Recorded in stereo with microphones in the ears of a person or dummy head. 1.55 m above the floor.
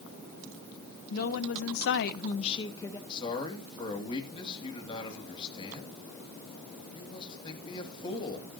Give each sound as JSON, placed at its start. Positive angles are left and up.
{"t": 1.1, "sound": "a woman speaking", "side_deg": 55, "distance_m": 1.4}
{"t": 3.1, "sound": "a man speaking", "side_deg": 30, "distance_m": 3.0}